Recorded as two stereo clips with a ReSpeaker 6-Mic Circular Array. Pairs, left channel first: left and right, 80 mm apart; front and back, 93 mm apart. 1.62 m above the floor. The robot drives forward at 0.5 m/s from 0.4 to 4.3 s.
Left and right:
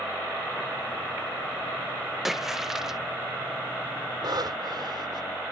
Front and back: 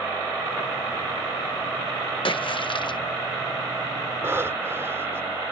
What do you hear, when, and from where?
2.2 s a splash: 5° right; by 3.0 s 10° right
4.2 s breathing: 115° right